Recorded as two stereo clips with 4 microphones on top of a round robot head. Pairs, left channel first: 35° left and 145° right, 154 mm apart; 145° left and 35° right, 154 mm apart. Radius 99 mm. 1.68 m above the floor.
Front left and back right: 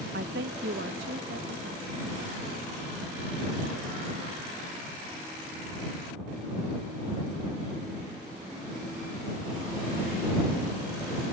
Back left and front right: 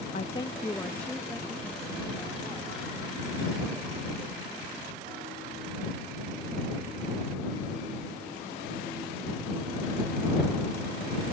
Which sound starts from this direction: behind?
A woman speaking, at 0.1 s.